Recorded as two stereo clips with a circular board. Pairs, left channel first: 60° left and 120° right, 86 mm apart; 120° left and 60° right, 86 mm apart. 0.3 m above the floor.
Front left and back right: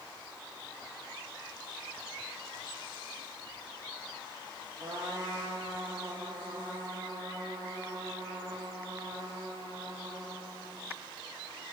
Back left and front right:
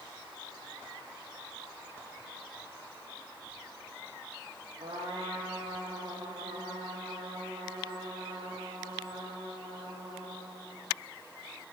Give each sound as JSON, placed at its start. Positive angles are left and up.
{"t": 4.8, "sound": "a trumpet", "azimuth_deg": -70, "distance_m": 9.5}